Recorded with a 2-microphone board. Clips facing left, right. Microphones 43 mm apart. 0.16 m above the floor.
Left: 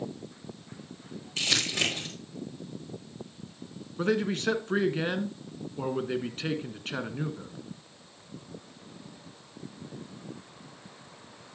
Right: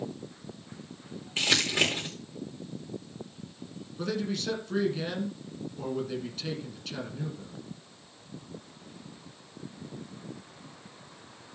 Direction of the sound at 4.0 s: 40° left (ahead or behind).